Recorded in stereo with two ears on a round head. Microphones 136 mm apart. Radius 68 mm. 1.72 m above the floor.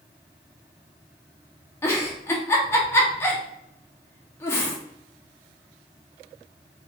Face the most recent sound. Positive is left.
turn(degrees=15)  # may be behind; listen again after turning